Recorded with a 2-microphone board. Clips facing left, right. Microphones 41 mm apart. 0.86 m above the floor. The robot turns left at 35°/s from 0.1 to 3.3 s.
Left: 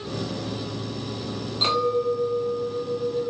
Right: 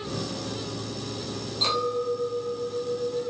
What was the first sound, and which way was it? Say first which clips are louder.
A clink: left 4 dB; 155° left.